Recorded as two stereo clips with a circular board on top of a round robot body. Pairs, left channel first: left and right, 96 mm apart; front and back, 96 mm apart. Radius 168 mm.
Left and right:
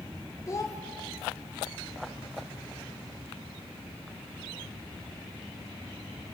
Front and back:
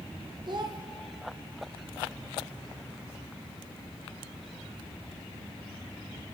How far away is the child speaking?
About 0.8 m.